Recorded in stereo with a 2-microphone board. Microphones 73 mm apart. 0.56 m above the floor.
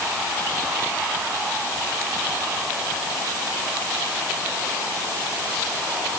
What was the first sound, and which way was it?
Only background noise.